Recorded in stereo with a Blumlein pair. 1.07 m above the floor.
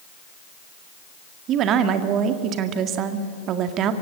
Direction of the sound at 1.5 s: 35° right.